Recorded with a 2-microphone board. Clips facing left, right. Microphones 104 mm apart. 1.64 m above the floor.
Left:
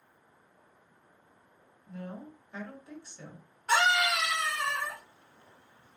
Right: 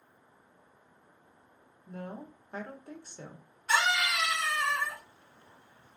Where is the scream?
55° left (ahead or behind), 1.6 m.